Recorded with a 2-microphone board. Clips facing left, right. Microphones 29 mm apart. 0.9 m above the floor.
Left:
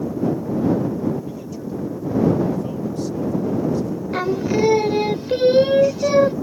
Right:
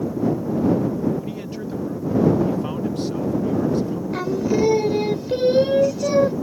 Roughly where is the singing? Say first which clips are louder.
Left 1 dB; left.